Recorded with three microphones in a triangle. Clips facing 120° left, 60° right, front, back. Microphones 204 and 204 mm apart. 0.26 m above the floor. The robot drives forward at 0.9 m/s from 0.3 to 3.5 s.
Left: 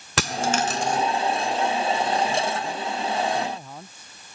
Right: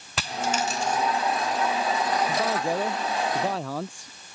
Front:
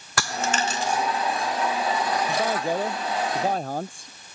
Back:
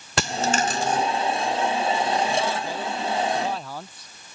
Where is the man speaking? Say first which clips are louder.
Right 1 dB, front 1 dB; 40° right; by 4.1 s 45° right.